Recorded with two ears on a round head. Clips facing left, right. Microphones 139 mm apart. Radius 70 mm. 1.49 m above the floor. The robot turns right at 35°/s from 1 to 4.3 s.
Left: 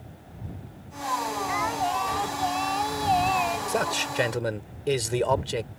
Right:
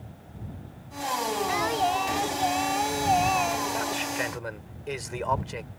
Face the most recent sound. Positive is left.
turn(degrees=40)  # may be behind; listen again after turning